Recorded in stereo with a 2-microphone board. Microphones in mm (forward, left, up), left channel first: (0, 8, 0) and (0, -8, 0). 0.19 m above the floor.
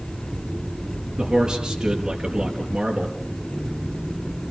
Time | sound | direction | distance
1.2 | a man speaking | 40° right (ahead or behind) | 4.5 m